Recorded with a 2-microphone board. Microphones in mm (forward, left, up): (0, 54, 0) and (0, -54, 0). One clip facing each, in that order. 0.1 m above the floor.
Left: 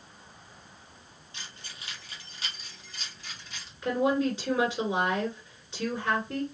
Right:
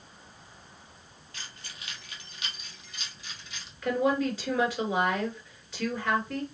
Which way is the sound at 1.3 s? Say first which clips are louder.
Even; 25° left (ahead or behind).